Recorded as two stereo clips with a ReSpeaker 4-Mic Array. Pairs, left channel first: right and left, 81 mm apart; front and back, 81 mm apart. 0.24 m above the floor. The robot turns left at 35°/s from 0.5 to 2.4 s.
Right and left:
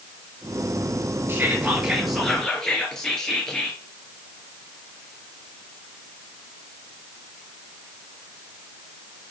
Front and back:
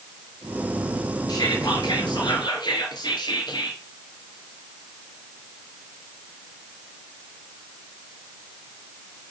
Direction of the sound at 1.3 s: 30° left.